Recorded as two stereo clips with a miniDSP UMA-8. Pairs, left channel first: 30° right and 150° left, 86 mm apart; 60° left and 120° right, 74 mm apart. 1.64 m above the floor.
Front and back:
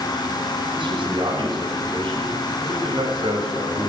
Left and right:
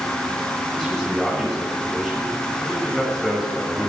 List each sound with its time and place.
0.7 s a man speaking: 145° left, 7 m